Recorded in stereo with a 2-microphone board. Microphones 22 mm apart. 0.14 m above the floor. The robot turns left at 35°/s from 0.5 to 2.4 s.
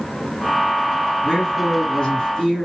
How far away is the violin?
No violin in this recording.